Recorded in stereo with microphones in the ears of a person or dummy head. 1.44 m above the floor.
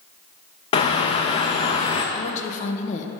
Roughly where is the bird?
Left.